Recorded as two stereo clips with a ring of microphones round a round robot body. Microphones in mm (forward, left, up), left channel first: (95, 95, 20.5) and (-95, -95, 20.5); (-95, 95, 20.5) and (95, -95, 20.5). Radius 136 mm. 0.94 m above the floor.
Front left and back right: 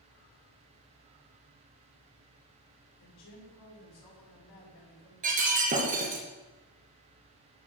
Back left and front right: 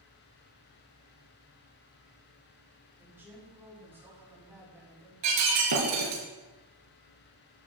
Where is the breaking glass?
75° right, 3.5 m.